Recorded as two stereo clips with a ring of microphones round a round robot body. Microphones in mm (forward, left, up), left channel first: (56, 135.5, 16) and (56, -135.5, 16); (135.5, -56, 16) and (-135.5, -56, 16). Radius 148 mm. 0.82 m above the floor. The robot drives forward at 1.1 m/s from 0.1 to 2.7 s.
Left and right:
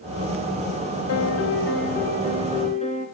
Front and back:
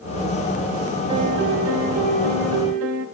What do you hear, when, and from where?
1.1 s a piano: 105° left, 0.9 m; by 3.0 s 160° left, 2 m